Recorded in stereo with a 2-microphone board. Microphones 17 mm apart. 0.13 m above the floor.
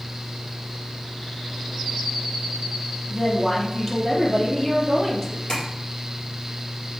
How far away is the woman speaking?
About 3.5 m.